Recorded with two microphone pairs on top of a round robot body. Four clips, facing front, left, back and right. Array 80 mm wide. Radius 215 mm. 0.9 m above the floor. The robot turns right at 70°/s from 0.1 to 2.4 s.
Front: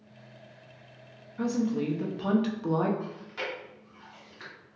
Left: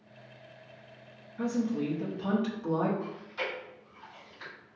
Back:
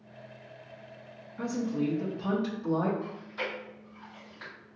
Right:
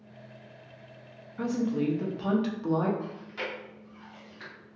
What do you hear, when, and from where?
1.4 s a woman speaking: 90° right, 1.0 m; by 2.9 s 20° right, 1.0 m
3.0 s chewing: 25° right, 1.6 m